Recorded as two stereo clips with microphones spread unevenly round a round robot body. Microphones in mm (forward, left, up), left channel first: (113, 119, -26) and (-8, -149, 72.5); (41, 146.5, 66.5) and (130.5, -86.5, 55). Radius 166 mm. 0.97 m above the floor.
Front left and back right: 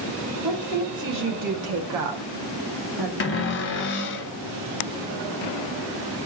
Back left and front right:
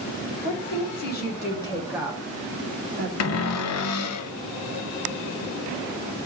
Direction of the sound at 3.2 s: 100° left.